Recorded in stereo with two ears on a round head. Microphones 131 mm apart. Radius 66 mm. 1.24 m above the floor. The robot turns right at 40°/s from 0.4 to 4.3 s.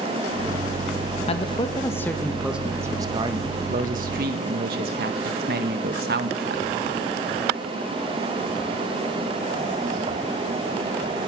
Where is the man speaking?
135° left, 1.6 m; by 6.7 s 100° right, 1.6 m.